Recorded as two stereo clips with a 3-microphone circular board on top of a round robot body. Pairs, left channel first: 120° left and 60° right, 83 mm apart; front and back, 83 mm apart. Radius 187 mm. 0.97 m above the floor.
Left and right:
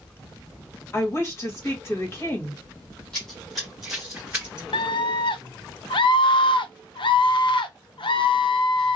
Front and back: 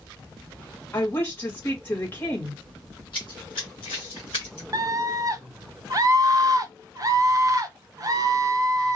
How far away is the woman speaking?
About 1.9 m.